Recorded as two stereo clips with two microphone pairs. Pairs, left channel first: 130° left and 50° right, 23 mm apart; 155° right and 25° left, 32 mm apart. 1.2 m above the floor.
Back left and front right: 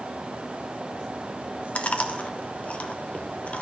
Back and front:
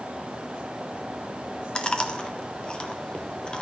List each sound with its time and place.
1.8 s chewing: 150° left, 0.8 m